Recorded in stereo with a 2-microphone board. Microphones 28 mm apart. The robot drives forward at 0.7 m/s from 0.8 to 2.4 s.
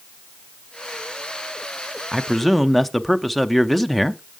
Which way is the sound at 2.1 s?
10° left (ahead or behind).